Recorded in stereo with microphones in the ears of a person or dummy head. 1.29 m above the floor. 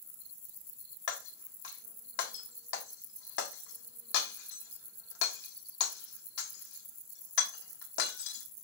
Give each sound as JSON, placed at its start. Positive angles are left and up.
{"t": 1.1, "sound": "breaking glass", "side_deg": 70, "distance_m": 1.5}